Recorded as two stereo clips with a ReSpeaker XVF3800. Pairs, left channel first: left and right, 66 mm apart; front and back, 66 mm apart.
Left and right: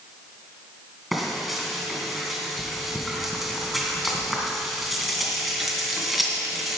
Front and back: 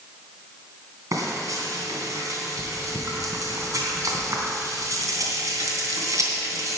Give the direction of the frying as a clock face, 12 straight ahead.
6 o'clock.